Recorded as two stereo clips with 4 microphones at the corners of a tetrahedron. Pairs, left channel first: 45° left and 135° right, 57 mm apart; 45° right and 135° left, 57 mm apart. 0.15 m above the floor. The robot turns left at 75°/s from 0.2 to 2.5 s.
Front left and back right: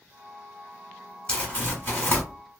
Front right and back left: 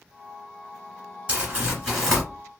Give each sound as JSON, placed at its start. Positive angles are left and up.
{"t": 1.3, "sound": "crumpling", "azimuth_deg": 95, "distance_m": 1.5}